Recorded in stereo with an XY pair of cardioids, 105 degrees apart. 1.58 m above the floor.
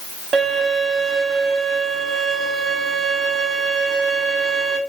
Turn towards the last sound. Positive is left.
turn(degrees=-70)